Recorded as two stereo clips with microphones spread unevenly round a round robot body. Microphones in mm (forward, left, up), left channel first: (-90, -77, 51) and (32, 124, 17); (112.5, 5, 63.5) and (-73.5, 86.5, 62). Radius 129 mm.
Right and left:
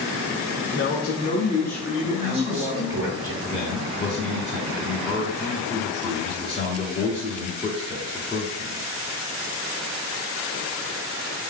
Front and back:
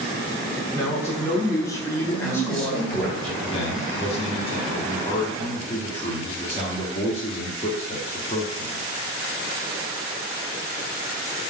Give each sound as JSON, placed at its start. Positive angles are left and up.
{"t": 0.8, "sound": "a man speaking", "azimuth_deg": -100, "distance_m": 1.1}
{"t": 2.1, "sound": "a man speaking", "azimuth_deg": 60, "distance_m": 1.4}
{"t": 3.4, "sound": "a man speaking", "azimuth_deg": -55, "distance_m": 1.0}